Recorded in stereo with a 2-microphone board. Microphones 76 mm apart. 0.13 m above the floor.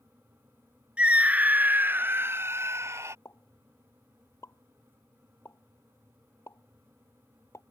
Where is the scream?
15° right (ahead or behind); by 3.1 s 35° right (ahead or behind).